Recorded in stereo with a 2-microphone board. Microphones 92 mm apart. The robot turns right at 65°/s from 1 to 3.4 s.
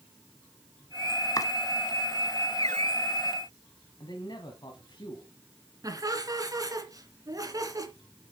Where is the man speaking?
55° left (ahead or behind), 1.7 m.